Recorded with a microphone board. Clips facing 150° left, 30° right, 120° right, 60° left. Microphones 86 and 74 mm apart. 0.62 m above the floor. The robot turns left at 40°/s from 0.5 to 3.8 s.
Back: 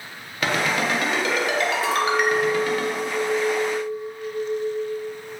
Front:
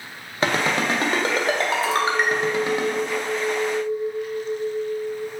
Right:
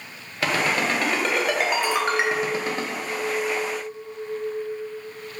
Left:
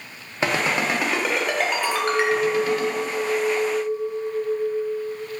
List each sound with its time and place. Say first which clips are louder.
0.4 s a ringtone: front 1 dB, left 1 dB; 5° left, 0.5 m; by 2.8 s 90° right, 0.5 m
1.8 s a clink: back 1 dB, left 1 dB; 140° left, 0.8 m; by 5.2 s 60° left, 0.8 m